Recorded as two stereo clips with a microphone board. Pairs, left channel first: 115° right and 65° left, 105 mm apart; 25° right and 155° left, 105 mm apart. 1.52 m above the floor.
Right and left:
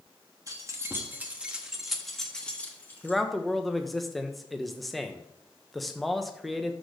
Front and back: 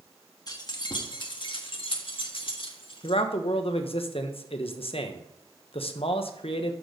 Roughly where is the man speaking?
Ahead right.